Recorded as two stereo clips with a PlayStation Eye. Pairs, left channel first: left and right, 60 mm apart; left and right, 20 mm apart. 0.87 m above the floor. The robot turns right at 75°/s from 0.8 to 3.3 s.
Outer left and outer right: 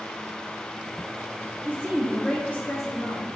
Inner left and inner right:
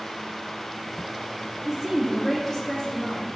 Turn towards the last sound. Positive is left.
turn(degrees=90)